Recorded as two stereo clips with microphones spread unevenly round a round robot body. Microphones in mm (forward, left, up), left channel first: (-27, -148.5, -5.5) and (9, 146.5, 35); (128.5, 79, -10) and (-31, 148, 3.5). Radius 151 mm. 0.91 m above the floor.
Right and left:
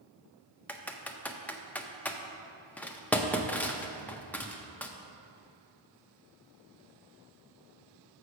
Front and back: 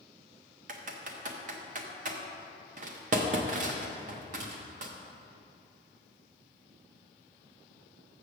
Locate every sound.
0.7 s typing on a keyboard: 170° right, 0.6 m